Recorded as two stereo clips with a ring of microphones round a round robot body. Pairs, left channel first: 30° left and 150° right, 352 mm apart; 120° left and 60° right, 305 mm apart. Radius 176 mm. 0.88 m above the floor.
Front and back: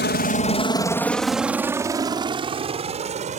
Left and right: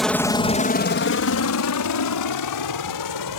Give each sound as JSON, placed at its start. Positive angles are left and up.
{"t": 0.0, "sound": "a helicopter", "azimuth_deg": 30}